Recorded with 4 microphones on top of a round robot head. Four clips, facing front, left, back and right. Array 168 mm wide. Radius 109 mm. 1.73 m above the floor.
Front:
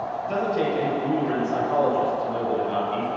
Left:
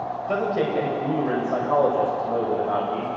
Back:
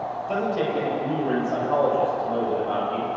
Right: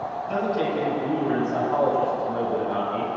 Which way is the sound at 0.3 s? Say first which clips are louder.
Left 1 dB, front 1 dB; 100° left.